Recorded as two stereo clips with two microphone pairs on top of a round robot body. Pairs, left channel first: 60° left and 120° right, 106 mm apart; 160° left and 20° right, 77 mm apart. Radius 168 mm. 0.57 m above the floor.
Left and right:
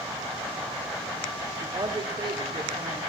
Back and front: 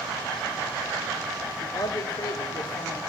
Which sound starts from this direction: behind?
A man speaking, at 1.6 s.